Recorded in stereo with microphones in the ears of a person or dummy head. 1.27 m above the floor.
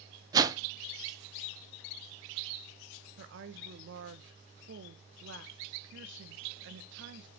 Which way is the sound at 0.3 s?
20° right (ahead or behind).